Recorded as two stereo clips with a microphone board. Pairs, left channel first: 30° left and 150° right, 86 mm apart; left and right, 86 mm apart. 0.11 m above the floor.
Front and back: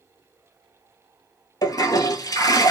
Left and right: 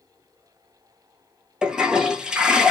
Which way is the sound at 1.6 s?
10° right.